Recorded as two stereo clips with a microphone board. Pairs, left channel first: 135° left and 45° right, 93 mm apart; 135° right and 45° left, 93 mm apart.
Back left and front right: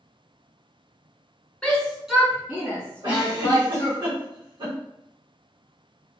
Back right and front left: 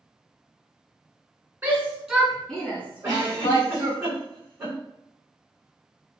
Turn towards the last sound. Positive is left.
turn(degrees=-10)